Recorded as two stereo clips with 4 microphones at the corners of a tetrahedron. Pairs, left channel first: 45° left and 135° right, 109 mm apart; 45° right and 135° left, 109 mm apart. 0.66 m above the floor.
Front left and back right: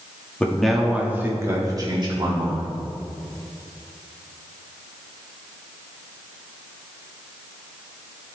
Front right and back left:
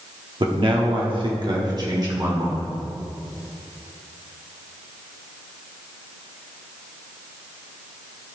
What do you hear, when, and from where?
0.4 s a man speaking: 120° left, 1.3 m; by 2.8 s 165° right, 2 m